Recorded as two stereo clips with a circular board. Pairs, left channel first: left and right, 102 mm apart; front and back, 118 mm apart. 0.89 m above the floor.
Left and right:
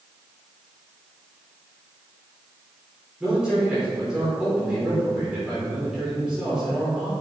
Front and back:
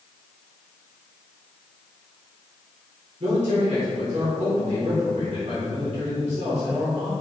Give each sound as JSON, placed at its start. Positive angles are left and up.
{"t": 3.2, "sound": "a man speaking", "azimuth_deg": -170, "distance_m": 3.0}